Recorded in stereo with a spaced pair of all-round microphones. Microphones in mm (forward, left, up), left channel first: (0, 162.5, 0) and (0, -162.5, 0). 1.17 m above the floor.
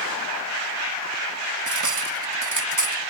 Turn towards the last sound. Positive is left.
turn(degrees=-65)  # may be behind; listen again after turning